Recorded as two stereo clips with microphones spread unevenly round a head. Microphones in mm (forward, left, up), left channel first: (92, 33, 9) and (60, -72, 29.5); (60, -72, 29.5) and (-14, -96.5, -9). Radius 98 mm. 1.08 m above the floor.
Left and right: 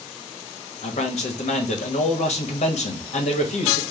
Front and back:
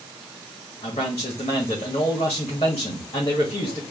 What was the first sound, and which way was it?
A man speaking, 60° left.